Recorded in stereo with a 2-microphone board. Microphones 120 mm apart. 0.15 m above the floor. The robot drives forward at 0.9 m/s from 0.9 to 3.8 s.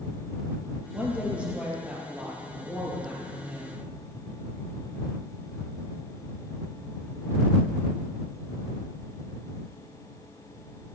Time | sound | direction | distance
0.9 | a woman speaking | 10° right (ahead or behind) | 3.5 m